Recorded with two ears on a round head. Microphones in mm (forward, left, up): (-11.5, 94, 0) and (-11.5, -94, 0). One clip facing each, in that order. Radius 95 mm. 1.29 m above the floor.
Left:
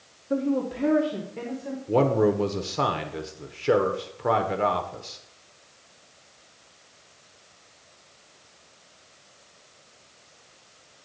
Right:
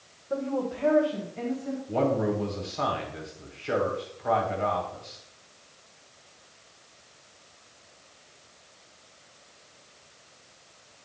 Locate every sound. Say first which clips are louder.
0.3 s a woman speaking: left 4 dB; 30° left (ahead or behind), 1.2 m; by 1.8 s 55° left (ahead or behind), 1.7 m
1.9 s a man speaking: left 5 dB; 55° left (ahead or behind), 1.0 m